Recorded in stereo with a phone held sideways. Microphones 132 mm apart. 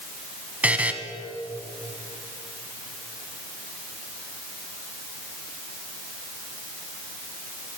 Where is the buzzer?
10° right (ahead or behind), 1.5 m.